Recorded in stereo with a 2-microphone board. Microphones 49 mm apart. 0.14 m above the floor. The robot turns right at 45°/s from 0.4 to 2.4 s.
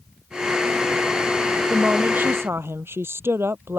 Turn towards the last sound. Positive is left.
turn(degrees=-120)